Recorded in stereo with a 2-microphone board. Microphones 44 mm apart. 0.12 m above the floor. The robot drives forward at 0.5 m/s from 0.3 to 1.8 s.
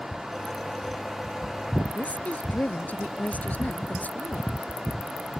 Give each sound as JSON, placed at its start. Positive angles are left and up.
{"t": 1.9, "sound": "a woman speaking", "side_deg": 35}